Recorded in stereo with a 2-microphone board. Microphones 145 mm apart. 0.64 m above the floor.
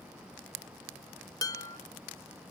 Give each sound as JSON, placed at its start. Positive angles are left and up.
{"t": 1.4, "sound": "dishes clattering", "side_deg": 25, "distance_m": 0.6}